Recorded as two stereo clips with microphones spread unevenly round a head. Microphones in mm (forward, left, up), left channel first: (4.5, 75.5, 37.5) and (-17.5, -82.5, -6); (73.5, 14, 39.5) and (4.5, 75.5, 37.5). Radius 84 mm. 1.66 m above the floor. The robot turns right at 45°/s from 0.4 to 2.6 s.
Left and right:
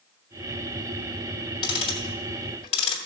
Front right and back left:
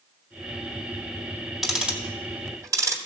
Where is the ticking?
50° left, 1.9 m; by 3.0 s 95° left, 1.9 m.